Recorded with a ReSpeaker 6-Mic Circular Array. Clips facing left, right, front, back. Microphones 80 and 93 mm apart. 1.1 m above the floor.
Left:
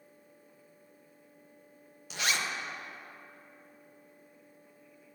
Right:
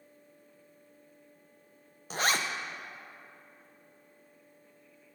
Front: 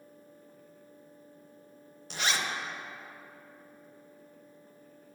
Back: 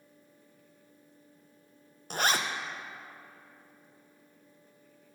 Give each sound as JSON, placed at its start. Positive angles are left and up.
{"t": 2.1, "sound": "a zipper", "azimuth_deg": -135, "distance_m": 0.6}